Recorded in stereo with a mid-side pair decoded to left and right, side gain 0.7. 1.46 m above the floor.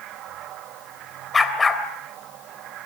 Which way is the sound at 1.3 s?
15° left.